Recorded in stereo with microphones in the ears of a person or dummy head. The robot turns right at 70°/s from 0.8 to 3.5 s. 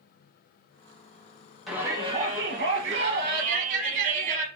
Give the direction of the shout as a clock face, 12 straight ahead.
6 o'clock.